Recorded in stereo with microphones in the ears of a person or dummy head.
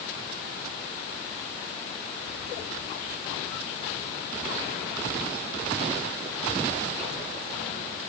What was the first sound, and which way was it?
Only background noise.